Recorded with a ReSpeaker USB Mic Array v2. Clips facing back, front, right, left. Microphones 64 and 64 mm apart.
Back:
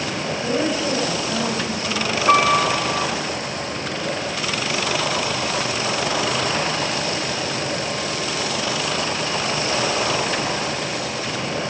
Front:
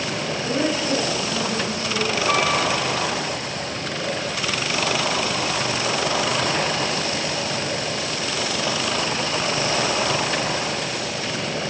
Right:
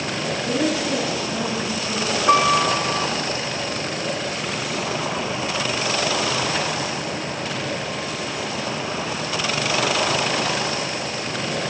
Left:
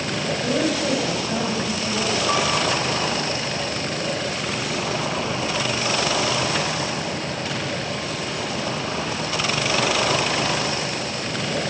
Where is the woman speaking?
105° left, 5.5 m.